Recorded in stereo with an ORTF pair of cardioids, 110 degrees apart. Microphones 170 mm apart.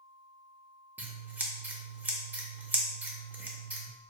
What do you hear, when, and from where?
1.0 s scissors: 10° right, 0.6 m